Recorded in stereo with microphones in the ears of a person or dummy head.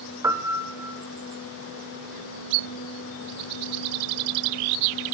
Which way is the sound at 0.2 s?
10° right (ahead or behind).